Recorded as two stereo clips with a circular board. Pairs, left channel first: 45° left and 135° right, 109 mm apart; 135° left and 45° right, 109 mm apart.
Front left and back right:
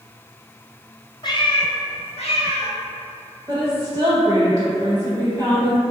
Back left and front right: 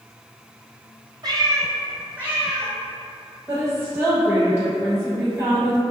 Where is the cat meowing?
Straight ahead, 0.5 m; by 2.7 s 40° left, 1.1 m.